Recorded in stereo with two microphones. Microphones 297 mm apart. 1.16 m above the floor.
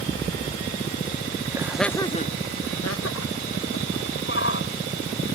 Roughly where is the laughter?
Centre.